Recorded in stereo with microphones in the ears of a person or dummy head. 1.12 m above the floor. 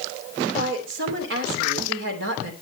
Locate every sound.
0.5 s a woman speaking: 65° right (ahead or behind), 3 m